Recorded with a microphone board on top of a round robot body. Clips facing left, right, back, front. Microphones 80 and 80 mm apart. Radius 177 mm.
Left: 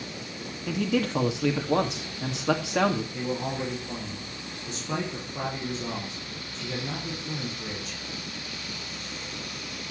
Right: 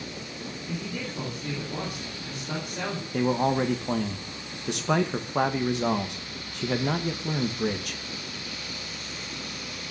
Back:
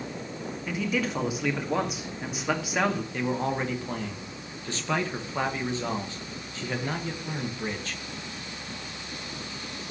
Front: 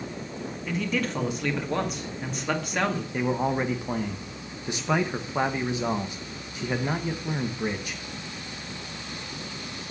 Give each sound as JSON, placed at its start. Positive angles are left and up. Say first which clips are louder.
{"t": 0.7, "sound": "a man speaking", "louder": "left 10 dB, even", "azimuth_deg": 95, "distance_m": 2.5}
{"t": 3.1, "sound": "a man speaking", "louder": "right 6 dB, front 2 dB", "azimuth_deg": -75, "distance_m": 1.8}